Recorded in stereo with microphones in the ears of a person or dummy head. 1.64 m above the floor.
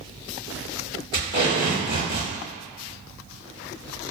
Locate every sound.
1.1 s tape being pulled: 20° left (ahead or behind), 1.4 m